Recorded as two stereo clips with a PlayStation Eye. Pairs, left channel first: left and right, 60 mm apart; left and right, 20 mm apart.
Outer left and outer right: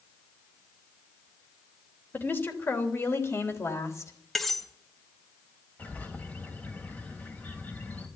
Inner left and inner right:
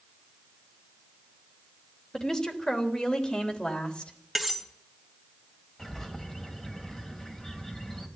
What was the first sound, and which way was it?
A woman speaking, 35° left (ahead or behind).